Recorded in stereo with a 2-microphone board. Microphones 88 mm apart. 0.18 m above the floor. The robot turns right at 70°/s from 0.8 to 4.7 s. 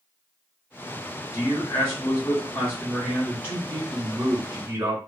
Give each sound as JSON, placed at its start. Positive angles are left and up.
{"t": 1.3, "sound": "a man speaking", "azimuth_deg": 60, "distance_m": 1.5}